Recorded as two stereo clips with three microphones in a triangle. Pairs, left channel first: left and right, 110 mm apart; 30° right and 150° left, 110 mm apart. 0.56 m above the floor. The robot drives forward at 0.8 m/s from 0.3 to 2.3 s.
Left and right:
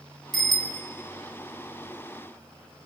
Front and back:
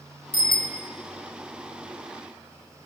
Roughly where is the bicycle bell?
Ahead.